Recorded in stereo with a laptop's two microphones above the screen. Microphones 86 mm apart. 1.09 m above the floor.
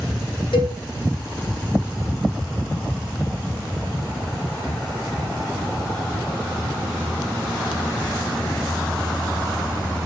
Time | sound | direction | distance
0.5 | a cowbell | 85° left | 3 m